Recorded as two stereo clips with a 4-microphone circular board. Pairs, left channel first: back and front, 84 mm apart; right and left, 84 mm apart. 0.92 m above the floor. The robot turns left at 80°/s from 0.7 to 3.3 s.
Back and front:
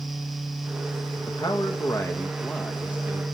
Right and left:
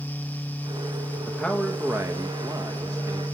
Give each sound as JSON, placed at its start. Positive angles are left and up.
{"t": 1.3, "sound": "a man speaking", "azimuth_deg": -155, "distance_m": 1.1}